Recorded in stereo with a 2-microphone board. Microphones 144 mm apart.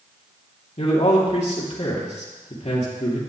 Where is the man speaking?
55° left (ahead or behind), 2.5 m.